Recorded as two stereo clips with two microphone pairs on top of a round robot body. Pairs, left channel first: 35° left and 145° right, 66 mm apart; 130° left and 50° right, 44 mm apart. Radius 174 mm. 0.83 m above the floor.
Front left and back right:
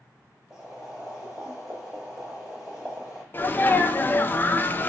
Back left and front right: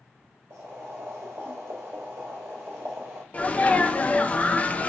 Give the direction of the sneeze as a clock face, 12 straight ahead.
10 o'clock.